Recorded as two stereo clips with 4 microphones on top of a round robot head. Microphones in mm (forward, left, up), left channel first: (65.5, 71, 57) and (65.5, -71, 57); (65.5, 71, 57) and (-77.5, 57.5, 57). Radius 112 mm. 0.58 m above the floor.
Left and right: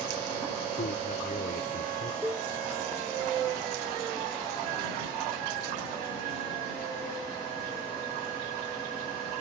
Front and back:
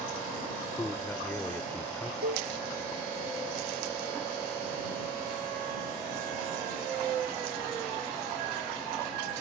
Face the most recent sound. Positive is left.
turn(degrees=-170)